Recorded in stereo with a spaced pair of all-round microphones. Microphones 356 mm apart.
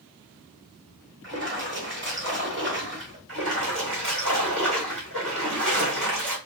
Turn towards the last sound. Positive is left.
turn(degrees=-35)  # may be behind; listen again after turning